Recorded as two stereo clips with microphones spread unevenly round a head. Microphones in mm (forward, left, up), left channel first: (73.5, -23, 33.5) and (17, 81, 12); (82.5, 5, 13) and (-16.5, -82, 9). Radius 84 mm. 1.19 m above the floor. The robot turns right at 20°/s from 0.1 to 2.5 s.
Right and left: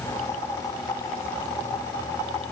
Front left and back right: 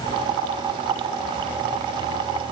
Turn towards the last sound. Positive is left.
No sound to turn to.